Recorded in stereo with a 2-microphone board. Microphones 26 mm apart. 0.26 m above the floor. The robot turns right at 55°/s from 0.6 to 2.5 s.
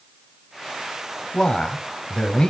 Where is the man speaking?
60° left, 1.2 m; by 2.5 s 125° left, 1.2 m.